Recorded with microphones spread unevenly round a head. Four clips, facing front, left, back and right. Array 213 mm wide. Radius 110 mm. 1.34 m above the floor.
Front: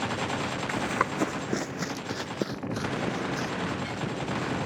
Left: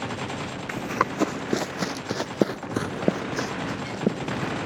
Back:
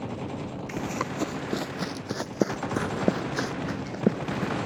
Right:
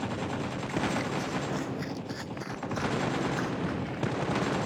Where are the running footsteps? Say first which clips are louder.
Left 5 dB, front 2 dB; 65° left; by 4.5 s 150° left.